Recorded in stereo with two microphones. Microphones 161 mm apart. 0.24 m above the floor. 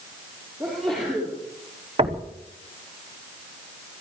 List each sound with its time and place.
0.6 s a sneeze: centre (ahead or behind), 7.5 m
2.0 s knocking: 40° right (ahead or behind), 1.0 m